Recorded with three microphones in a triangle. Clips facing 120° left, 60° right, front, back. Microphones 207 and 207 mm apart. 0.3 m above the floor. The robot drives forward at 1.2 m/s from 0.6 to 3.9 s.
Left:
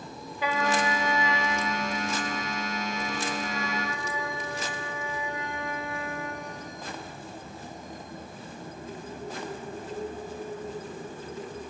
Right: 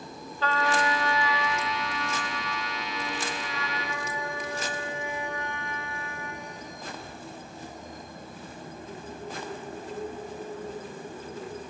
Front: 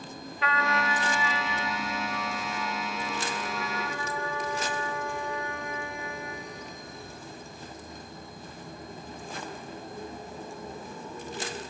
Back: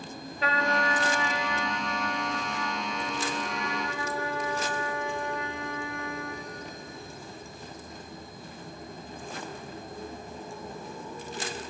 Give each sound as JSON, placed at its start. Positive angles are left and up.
{"t": 0.4, "sound": "a trumpet", "azimuth_deg": -175, "distance_m": 1.3}